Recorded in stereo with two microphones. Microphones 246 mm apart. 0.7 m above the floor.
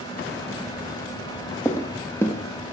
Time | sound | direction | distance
1.6 | footsteps | 10° left (ahead or behind) | 1.0 m